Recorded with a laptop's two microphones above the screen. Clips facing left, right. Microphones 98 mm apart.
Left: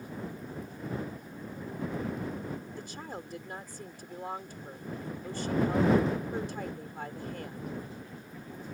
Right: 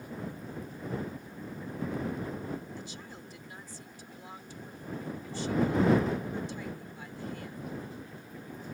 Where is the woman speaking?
50° left (ahead or behind).